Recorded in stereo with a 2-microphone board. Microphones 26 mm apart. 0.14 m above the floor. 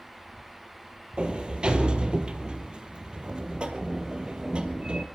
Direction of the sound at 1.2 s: 40° right (ahead or behind).